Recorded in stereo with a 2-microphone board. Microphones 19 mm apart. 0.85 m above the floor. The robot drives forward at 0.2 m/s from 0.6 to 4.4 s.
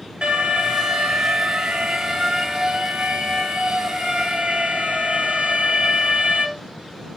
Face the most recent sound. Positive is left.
turn(degrees=-85)